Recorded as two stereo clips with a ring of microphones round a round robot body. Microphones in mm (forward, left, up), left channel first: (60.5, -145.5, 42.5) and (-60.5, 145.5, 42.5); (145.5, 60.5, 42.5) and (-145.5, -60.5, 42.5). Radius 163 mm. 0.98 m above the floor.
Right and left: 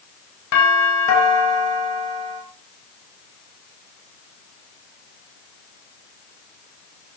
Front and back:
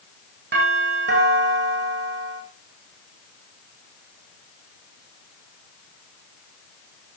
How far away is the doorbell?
About 9 m.